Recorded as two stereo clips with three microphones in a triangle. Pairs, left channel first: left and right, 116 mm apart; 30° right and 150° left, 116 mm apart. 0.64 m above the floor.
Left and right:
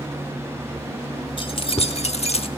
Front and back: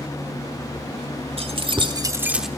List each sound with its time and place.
1.4 s keys jangling: 125° left, 1.9 m; by 2.5 s 60° left, 1.2 m